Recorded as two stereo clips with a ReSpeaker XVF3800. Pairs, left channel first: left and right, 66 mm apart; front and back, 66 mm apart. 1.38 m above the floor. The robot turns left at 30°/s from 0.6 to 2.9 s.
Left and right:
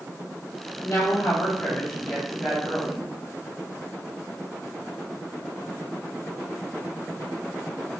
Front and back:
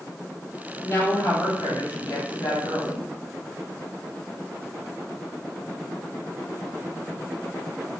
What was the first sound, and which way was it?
A woman speaking, 55° left.